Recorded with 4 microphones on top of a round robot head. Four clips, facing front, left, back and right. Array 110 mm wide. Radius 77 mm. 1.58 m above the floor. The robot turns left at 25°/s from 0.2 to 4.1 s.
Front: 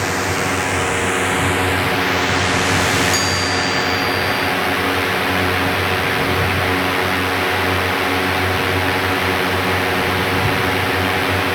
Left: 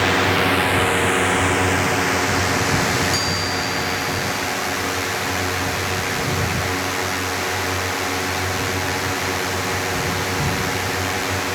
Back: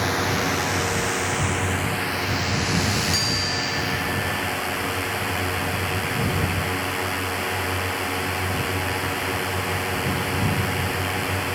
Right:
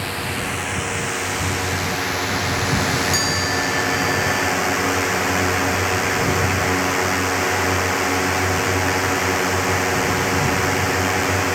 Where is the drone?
70° left; by 11.6 s 25° right.